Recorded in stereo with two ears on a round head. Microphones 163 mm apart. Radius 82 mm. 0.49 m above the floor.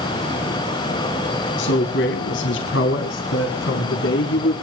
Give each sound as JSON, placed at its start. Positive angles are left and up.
{"t": 1.6, "sound": "a man speaking", "side_deg": 70, "distance_m": 4.5}